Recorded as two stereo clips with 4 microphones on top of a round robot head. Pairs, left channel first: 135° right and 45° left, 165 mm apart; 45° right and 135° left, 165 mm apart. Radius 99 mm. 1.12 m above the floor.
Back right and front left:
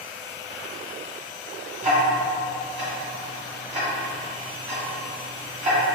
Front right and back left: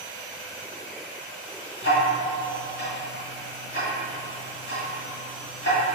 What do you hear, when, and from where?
1.8 s ticking: 5° right, 1.4 m